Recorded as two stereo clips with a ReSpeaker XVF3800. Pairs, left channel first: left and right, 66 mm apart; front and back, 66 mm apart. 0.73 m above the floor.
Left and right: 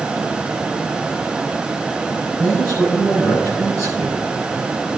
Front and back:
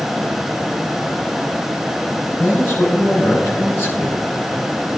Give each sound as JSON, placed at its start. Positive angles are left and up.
{"t": 2.4, "sound": "a man speaking", "azimuth_deg": 55, "distance_m": 5.0}